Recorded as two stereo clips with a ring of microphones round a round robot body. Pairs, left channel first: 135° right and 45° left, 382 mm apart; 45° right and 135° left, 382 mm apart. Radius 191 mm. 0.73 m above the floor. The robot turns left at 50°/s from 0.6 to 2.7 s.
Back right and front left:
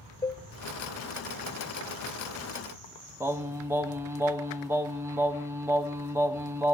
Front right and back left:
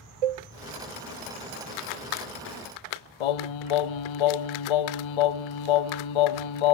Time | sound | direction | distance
0.2 | a cowbell | 145° left | 0.6 m
3.2 | singing | 40° right | 1.1 m